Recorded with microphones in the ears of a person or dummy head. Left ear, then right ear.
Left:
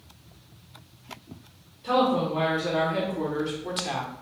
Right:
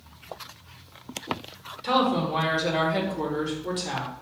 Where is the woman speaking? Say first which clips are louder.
Even; 45° right (ahead or behind), 1.3 m; by 4.1 s 25° left (ahead or behind), 1.2 m.